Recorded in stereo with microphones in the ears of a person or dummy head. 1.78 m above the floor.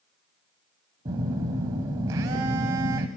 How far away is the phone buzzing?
About 1.7 m.